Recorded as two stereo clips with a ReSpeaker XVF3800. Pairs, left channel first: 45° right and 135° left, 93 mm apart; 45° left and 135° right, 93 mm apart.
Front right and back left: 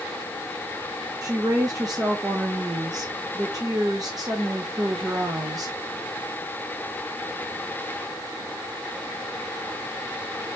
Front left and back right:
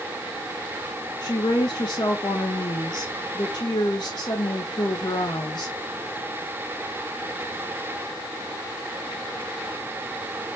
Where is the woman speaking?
85° left, 0.7 m.